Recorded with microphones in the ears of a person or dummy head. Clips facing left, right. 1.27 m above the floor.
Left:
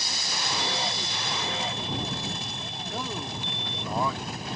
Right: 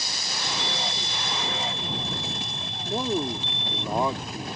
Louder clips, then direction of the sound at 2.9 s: Right 9 dB; 25° right (ahead or behind).